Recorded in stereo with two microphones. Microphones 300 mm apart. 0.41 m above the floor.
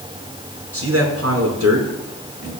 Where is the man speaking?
50° right (ahead or behind), 5 m.